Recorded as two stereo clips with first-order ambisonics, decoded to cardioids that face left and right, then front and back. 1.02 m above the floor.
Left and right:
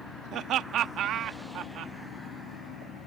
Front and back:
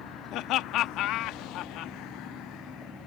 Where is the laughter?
40° right.